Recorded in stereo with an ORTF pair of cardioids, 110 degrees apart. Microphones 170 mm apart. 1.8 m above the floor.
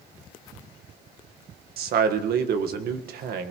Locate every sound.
1.8 s a man speaking: 70° right, 1.6 m